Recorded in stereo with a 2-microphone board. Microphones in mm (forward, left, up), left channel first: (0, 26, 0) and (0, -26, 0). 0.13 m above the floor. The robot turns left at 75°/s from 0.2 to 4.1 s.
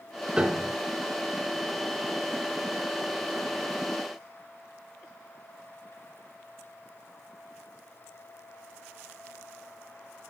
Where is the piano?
20° right (ahead or behind), 1.2 m; by 0.7 s 5° right (ahead or behind), 1.2 m.